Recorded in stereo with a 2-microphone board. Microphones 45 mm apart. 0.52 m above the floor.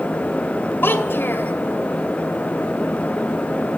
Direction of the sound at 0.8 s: 55° left (ahead or behind).